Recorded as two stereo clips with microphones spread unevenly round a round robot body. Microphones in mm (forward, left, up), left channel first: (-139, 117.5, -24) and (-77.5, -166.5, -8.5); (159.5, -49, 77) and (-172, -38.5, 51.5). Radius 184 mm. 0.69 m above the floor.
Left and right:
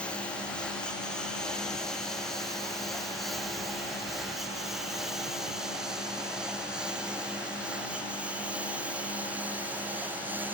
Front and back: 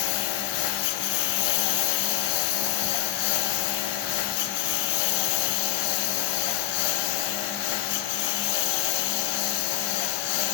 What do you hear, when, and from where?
0.0 s a lawn mower: 15° left; by 10.5 s 10° left